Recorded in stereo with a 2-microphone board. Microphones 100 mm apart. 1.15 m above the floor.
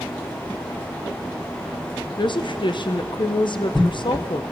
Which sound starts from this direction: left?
A woman speaking, at 2.2 s.